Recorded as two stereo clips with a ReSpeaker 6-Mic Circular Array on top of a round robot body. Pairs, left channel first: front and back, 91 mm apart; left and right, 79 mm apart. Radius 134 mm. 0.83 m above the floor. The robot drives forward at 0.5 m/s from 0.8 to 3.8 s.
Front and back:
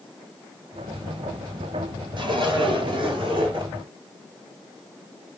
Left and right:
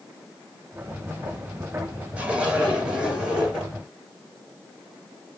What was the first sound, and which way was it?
A zipper, 165° right.